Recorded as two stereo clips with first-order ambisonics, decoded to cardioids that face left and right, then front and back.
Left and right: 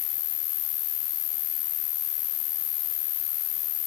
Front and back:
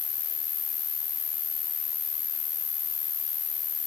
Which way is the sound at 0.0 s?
65° left.